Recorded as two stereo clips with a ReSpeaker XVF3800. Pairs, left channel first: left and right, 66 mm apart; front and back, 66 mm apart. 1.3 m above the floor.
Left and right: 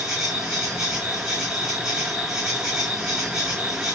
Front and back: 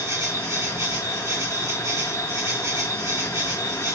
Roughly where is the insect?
Behind.